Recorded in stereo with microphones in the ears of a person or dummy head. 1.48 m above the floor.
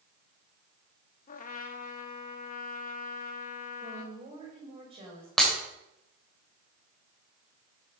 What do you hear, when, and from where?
1.3 s a trumpet: 40° left (ahead or behind), 1.0 m
3.8 s a woman speaking: 35° right (ahead or behind), 8.5 m
5.4 s breaking glass: centre (ahead or behind), 3 m